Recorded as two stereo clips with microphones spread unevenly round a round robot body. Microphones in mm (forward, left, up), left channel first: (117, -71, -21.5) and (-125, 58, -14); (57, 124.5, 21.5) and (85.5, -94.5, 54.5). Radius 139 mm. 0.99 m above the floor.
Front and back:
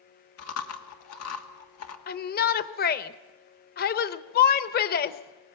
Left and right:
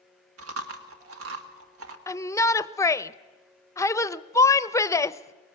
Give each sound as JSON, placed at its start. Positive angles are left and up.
{"t": 0.4, "sound": "chewing", "azimuth_deg": -65, "distance_m": 1.7}
{"t": 2.1, "sound": "a shout", "azimuth_deg": 25, "distance_m": 0.8}